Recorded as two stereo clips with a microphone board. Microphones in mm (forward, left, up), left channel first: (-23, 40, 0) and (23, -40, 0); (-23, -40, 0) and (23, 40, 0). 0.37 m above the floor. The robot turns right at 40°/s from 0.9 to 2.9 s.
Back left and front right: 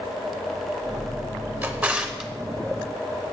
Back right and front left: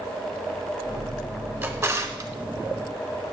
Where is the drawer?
5° left, 0.9 m; by 2.3 s 35° left, 0.9 m.